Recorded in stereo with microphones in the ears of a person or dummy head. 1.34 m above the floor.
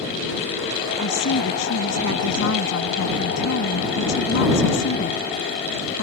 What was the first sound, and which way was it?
A woman speaking, 80° left.